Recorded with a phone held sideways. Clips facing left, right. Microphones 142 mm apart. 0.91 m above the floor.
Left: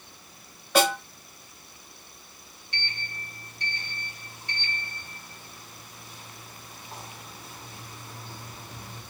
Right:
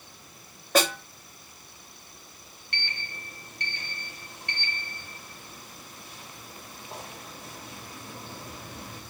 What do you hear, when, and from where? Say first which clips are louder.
0.8 s a snare drum: left 2 dB; 45° right (ahead or behind), 2 m
2.7 s a sliding door: even; 70° right (ahead or behind), 1.4 m